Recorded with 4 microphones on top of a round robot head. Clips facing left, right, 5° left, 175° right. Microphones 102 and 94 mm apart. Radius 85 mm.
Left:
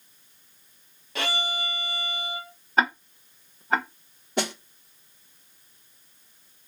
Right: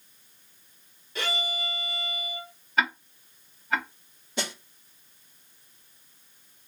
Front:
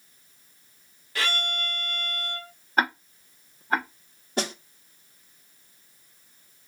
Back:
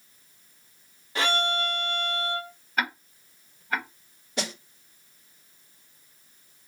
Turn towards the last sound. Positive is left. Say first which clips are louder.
# left 6 dB, front 3 dB
turn(degrees=55)